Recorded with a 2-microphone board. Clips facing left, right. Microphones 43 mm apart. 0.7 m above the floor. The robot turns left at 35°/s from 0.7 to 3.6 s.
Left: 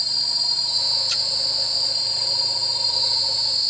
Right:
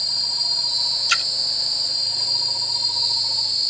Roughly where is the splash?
Right.